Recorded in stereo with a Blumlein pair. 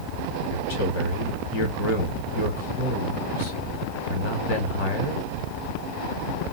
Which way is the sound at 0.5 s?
50° left.